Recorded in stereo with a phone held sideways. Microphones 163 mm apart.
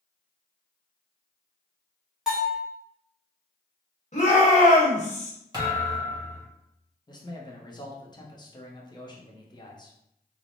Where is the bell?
5° right (ahead or behind), 1.3 m.